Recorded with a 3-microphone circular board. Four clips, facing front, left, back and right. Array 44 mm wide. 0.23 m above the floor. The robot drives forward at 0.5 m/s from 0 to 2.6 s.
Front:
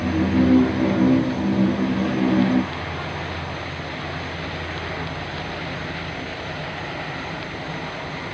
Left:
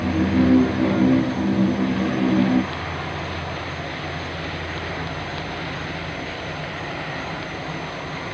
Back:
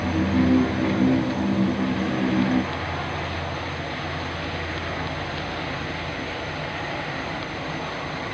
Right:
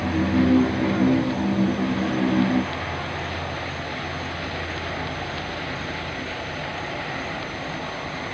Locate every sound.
0.0 s an insect: straight behind, 3 m